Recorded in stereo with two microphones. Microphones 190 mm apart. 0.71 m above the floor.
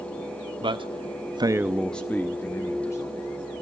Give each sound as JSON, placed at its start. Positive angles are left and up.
{"t": 0.6, "sound": "a man speaking", "side_deg": -25, "distance_m": 1.2}